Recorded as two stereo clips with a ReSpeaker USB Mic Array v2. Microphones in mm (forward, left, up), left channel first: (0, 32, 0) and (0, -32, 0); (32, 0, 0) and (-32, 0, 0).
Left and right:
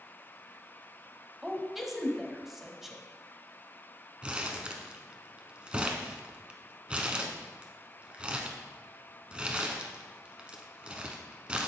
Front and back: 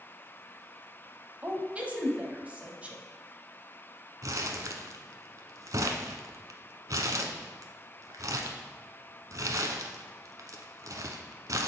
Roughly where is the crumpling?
Behind.